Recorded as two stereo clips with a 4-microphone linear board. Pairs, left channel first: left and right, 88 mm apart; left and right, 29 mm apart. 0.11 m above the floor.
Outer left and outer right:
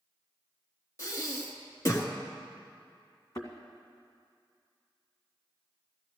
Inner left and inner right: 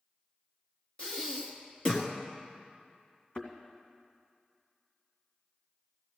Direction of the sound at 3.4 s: 45° left (ahead or behind).